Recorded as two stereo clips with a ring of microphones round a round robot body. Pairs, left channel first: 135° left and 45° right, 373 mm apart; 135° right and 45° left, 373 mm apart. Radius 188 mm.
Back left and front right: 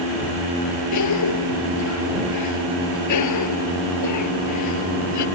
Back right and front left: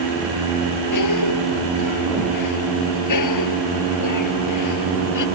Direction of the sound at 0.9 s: Straight behind.